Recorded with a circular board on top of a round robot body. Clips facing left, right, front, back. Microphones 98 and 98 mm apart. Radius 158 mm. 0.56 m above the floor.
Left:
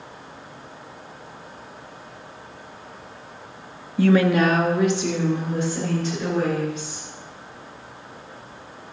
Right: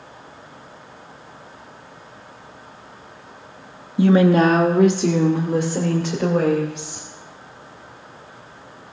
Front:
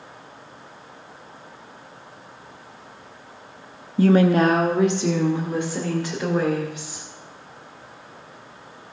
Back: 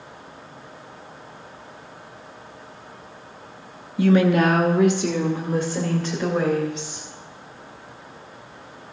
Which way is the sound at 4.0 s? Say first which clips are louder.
Right 3 dB, front 1 dB; 25° right.